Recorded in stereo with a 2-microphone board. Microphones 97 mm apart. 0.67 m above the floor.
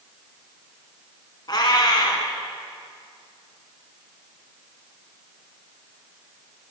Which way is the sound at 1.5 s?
45° left (ahead or behind).